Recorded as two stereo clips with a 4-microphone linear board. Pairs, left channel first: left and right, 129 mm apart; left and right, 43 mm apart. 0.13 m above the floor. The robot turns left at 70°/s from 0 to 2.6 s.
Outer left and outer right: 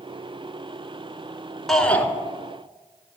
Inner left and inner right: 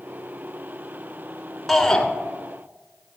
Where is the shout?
Centre (ahead or behind), 1.5 m; by 2.1 s 15° left (ahead or behind), 1.5 m.